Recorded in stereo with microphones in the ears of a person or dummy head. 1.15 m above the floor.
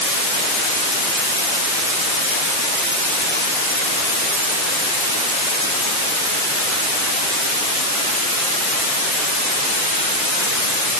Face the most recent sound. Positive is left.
No sound to turn to.